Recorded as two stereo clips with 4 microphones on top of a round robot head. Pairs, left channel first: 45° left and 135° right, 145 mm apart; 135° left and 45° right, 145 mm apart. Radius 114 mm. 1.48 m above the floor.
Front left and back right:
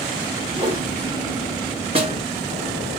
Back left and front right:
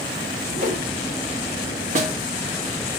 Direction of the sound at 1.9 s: 85° right.